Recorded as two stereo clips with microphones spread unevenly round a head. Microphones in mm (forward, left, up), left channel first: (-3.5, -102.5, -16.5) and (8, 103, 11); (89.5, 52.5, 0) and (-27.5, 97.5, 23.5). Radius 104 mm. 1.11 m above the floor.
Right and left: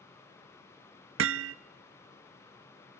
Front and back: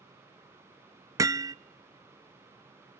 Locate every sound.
1.2 s hammering: 100° left, 0.7 m